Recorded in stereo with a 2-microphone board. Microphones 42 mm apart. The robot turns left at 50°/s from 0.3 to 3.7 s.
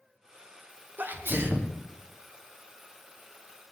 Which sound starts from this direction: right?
A sneeze, at 1.0 s.